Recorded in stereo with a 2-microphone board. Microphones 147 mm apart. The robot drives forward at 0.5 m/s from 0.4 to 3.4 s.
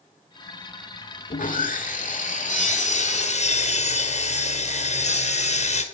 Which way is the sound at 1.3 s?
65° left (ahead or behind).